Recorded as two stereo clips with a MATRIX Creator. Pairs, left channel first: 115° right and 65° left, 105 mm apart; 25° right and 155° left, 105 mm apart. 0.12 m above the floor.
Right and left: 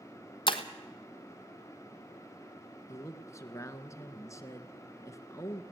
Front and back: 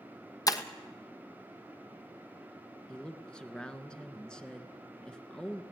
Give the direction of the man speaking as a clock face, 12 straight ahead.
3 o'clock.